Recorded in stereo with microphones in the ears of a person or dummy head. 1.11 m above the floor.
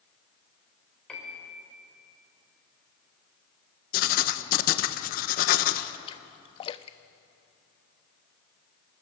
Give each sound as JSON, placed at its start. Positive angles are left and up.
{"t": 1.1, "sound": "a piano", "side_deg": 5, "distance_m": 4.0}
{"t": 3.9, "sound": "writing", "side_deg": 45, "distance_m": 1.0}
{"t": 6.1, "sound": "a splash", "side_deg": 25, "distance_m": 0.5}